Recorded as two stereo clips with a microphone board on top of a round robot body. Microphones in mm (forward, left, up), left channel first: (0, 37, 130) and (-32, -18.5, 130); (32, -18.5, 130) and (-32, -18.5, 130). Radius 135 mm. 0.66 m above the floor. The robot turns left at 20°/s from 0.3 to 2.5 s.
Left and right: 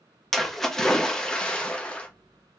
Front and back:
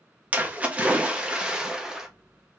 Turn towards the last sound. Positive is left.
turn(degrees=100)